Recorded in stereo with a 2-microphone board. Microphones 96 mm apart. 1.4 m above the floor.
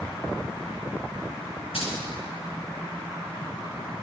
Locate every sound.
1.7 s keys jangling: 85° left, 6 m